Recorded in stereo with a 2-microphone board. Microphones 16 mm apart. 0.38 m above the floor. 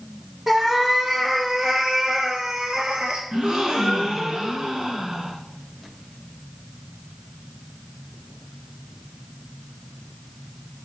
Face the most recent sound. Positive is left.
turn(degrees=-70)  # may be behind; listen again after turning